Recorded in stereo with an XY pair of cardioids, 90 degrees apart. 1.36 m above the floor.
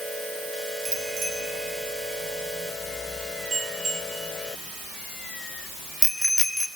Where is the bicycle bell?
65° right, 4 m; by 6.7 s straight ahead, 3 m.